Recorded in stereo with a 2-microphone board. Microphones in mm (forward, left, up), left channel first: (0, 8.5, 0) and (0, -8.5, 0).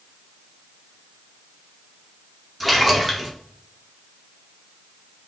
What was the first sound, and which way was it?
A splash, centre (ahead or behind).